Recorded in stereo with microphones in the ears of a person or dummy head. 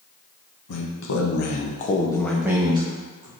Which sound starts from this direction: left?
A man speaking, at 0.7 s.